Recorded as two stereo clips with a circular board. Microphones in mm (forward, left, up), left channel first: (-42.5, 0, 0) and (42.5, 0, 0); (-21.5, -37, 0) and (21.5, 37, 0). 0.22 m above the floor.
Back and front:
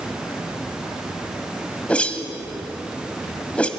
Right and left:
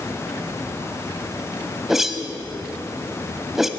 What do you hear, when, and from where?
1.9 s a whoosh: 140° left, 1.2 m